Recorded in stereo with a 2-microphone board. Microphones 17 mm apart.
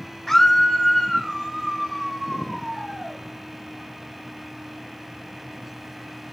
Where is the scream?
20° left (ahead or behind), 0.9 m.